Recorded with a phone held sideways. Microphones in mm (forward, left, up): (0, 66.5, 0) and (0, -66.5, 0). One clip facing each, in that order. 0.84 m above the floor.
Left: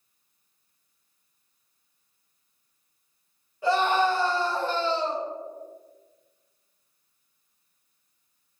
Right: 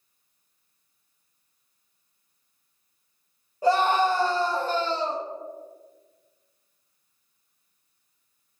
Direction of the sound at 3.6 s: 40° right (ahead or behind).